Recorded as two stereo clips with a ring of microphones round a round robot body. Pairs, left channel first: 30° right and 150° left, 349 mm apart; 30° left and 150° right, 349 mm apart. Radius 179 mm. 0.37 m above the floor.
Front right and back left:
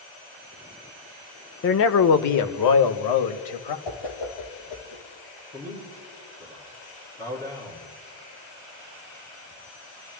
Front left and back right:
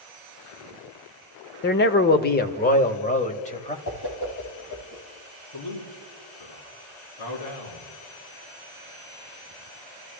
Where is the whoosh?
10° right, 4.5 m.